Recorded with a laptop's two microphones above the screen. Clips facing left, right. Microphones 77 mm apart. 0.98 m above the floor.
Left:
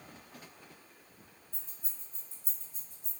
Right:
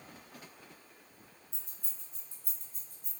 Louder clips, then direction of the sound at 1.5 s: Even; 85° right.